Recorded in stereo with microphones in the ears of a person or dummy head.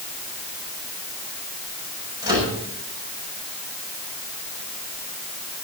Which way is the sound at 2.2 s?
20° right (ahead or behind).